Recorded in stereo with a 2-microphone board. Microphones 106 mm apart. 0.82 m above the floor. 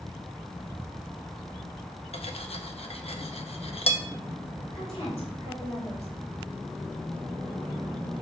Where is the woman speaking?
75° left (ahead or behind), 3.5 m.